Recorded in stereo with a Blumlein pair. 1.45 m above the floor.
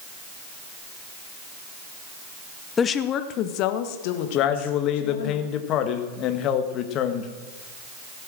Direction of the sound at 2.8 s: 20° left.